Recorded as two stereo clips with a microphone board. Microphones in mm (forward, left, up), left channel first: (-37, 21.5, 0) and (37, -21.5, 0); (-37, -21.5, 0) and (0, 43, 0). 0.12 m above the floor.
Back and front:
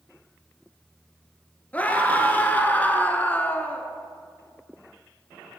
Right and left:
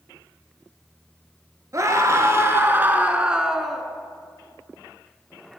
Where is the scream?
85° left, 1.6 m; by 3.9 s 155° left, 1.1 m.